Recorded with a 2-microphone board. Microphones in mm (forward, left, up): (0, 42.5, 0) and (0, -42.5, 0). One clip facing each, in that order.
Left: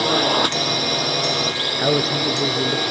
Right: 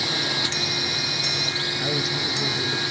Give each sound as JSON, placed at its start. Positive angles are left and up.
{"t": 0.0, "sound": "a drone", "side_deg": 60}
{"t": 1.8, "sound": "a man speaking", "side_deg": 45}